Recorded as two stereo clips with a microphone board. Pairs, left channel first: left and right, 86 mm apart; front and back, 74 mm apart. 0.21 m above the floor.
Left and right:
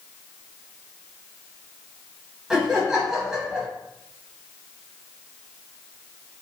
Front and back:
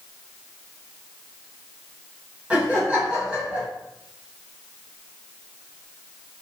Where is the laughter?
160° right, 1.1 m.